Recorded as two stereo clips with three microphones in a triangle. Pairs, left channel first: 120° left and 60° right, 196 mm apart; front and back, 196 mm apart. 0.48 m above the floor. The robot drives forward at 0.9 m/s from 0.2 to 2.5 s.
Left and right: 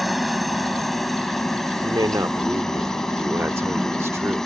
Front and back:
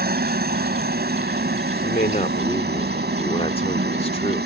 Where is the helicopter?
150° right; by 4.5 s 155° right.